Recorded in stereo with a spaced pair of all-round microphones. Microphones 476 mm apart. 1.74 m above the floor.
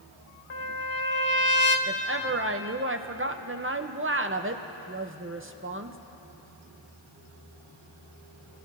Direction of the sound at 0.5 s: 90° left.